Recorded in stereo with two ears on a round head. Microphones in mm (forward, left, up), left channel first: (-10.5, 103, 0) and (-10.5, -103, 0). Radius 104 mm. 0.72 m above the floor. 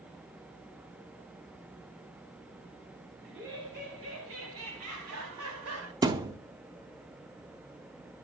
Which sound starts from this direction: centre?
A thud, at 6.0 s.